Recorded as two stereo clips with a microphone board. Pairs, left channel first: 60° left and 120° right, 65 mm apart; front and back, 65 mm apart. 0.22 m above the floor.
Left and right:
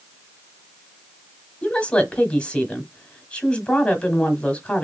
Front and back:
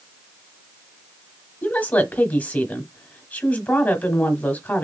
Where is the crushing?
No crushing in this recording.